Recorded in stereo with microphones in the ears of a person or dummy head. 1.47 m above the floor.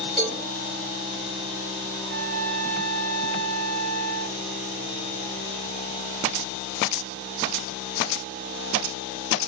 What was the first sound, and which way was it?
A cowbell, 25° right (ahead or behind).